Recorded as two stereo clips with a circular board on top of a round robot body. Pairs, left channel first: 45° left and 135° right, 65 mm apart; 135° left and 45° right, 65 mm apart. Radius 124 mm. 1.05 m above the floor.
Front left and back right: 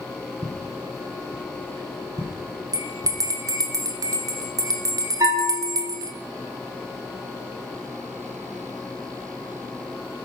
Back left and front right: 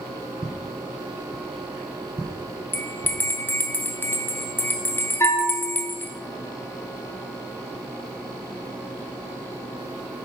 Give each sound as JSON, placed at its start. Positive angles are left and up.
{"t": 0.4, "sound": "footsteps", "azimuth_deg": -125, "distance_m": 1.6}
{"t": 2.7, "sound": "a bell", "azimuth_deg": -165, "distance_m": 1.1}
{"t": 5.2, "sound": "a bell", "azimuth_deg": -170, "distance_m": 1.6}